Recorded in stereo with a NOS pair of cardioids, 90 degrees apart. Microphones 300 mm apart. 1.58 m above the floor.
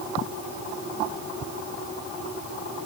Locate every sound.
Only background noise.